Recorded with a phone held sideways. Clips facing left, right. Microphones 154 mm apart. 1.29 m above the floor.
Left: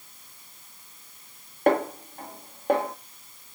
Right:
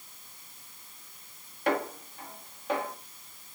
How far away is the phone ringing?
I don't hear a phone ringing.